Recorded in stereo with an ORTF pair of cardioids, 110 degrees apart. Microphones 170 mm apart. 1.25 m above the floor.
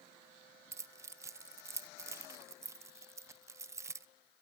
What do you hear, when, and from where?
0.7 s keys jangling: 15° right, 0.7 m